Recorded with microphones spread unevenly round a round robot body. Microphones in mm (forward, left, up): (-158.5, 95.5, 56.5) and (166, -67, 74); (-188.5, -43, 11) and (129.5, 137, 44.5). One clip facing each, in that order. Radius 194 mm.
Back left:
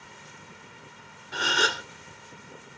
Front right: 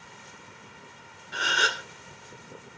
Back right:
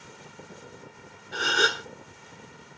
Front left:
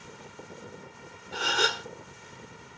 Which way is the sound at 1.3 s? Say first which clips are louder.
Back left 4 dB, back right 3 dB; 155° left.